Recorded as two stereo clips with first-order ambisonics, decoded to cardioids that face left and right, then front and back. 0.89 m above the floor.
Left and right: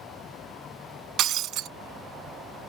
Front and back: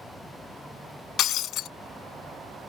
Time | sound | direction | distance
1.2 | breaking glass | 45° right | ?